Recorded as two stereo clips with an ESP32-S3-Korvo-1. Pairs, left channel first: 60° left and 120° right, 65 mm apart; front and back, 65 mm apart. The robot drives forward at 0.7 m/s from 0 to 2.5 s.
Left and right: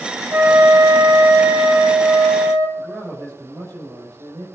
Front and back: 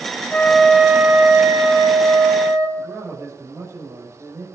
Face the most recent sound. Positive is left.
turn(degrees=-140)